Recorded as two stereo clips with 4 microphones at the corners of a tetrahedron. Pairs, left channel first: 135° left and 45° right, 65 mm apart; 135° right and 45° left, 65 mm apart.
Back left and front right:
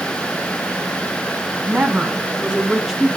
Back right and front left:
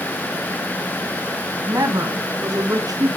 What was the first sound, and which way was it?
A woman speaking, 15° left.